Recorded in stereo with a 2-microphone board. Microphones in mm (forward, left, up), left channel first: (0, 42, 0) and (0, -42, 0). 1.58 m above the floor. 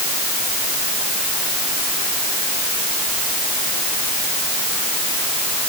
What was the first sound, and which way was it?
Only background noise.